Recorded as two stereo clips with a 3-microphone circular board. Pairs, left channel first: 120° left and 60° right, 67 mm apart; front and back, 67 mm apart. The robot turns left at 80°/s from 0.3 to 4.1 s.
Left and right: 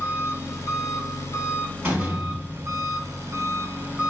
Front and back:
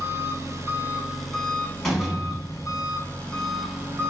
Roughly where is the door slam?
Right.